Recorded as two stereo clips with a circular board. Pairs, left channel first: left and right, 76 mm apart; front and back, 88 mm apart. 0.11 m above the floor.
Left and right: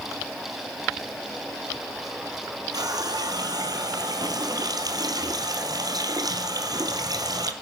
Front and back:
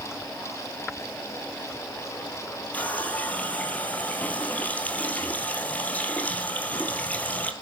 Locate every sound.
2.7 s a running tap: 70° right, 1.7 m